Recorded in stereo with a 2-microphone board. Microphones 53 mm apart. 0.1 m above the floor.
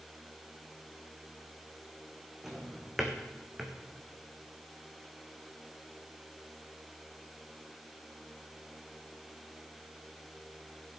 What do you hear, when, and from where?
2.4 s a drawer: 5° right (ahead or behind), 1.8 m